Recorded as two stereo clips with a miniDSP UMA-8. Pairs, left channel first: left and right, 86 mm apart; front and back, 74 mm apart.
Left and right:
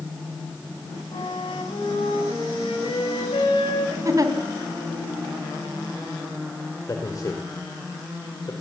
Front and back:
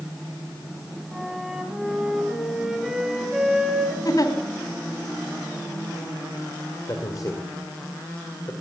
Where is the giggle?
40° right, 2.5 m.